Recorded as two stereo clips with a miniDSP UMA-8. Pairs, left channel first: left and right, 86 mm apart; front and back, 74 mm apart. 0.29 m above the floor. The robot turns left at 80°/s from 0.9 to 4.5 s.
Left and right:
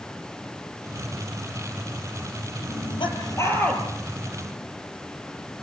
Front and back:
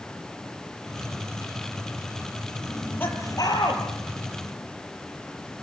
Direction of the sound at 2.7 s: 90° left.